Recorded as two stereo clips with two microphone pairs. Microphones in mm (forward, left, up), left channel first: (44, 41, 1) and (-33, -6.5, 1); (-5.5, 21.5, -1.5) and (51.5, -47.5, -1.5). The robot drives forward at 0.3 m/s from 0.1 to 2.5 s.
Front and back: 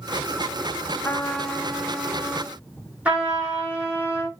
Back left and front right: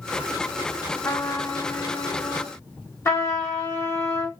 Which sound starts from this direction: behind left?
A trumpet, at 3.0 s.